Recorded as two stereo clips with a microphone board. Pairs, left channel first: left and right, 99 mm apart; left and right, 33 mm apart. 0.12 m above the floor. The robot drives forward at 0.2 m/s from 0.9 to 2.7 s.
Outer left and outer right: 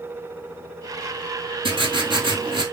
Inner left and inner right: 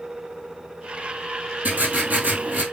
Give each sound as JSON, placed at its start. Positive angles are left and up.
{"t": 1.6, "sound": "writing", "side_deg": -65, "distance_m": 1.2}